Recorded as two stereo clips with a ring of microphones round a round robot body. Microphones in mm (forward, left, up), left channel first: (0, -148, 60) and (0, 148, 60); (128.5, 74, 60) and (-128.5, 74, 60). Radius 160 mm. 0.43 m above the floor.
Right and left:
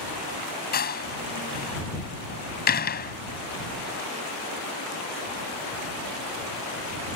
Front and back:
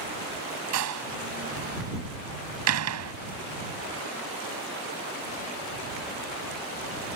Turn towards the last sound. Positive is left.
turn(degrees=-150)